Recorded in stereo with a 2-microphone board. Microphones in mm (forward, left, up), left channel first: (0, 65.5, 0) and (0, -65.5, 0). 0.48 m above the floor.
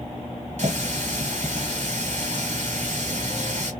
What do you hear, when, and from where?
0.6 s a running tap: 65° right (ahead or behind), 1.5 m